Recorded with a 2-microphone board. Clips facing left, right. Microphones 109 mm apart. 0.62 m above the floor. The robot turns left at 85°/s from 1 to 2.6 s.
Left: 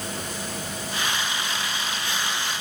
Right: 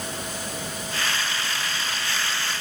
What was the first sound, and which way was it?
Only background noise.